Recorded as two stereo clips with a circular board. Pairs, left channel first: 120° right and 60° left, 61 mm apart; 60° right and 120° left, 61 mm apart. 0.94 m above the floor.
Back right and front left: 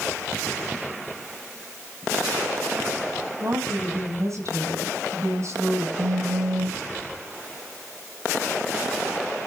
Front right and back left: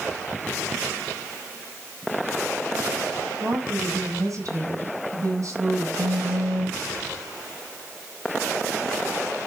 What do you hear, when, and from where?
3.4 s a woman speaking: 90° left, 4.5 m
6.0 s a phone buzzing: 85° left, 6 m